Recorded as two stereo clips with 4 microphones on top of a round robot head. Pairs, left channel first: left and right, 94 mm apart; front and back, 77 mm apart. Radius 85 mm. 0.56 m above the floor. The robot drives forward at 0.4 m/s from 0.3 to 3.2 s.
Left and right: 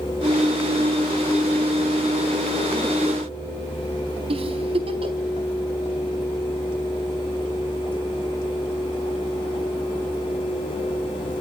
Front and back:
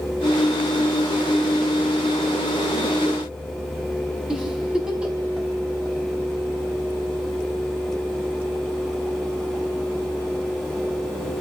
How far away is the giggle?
About 4.5 m.